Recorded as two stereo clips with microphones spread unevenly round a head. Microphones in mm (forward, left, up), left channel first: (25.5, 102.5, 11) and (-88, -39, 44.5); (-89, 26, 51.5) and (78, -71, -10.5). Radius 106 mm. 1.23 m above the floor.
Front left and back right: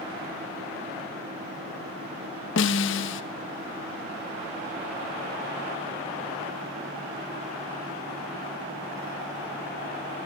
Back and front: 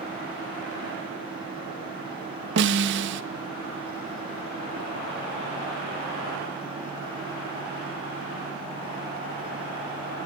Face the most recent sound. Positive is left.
turn(degrees=15)